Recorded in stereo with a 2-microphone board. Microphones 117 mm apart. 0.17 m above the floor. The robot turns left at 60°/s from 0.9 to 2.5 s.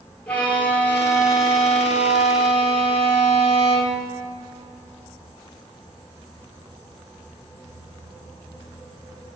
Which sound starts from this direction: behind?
A violin, at 0.3 s.